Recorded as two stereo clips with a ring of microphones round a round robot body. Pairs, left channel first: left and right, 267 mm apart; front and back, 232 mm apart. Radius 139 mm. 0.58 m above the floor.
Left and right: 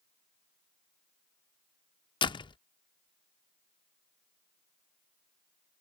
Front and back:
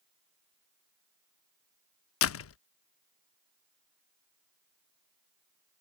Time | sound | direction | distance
2.2 | a door slam | 20° left | ?